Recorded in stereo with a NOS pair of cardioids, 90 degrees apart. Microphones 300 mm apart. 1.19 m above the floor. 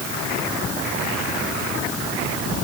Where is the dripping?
No dripping in this recording.